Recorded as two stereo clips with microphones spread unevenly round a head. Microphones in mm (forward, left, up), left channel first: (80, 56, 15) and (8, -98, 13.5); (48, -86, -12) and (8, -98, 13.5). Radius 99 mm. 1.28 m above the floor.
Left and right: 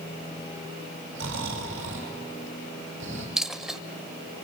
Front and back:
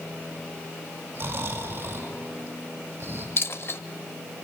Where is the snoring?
150° right, 5 m.